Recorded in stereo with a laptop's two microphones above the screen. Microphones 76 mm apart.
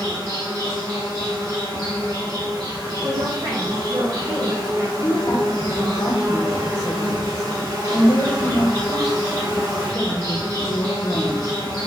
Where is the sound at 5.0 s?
50° left (ahead or behind), 0.9 m.